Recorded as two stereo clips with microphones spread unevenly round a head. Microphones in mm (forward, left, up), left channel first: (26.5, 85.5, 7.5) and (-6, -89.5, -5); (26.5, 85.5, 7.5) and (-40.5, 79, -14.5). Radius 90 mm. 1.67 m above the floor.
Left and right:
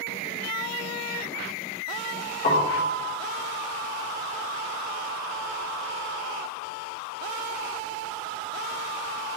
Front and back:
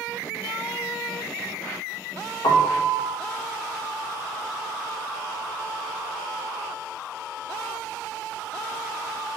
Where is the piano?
30° left, 1.3 m.